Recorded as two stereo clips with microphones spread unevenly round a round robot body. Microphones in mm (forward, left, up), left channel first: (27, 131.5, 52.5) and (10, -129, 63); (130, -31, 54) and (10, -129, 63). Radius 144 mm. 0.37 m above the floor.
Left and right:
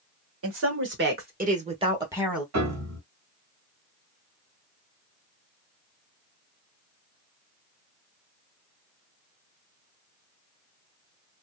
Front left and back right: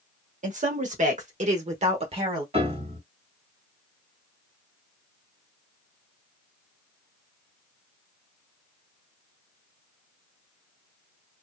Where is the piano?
90° right, 1.7 m.